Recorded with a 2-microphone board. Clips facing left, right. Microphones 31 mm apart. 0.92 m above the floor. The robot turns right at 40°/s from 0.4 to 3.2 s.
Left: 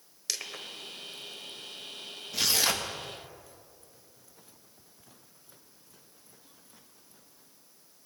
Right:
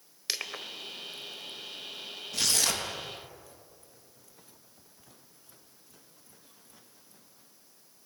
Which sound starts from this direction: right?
Crushing, at 0.3 s.